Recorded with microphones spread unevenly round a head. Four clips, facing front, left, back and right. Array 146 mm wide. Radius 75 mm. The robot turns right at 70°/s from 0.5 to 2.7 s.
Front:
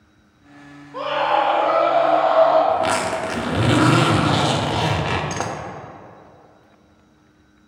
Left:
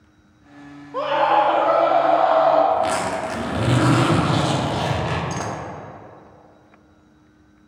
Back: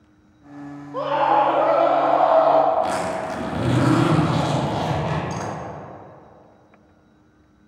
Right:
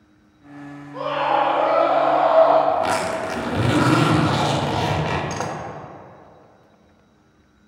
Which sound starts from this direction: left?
A scream, at 0.9 s.